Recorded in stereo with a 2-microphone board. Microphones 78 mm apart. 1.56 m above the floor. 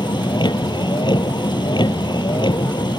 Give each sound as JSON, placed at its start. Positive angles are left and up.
{"t": 0.0, "sound": "a vehicle", "side_deg": 80}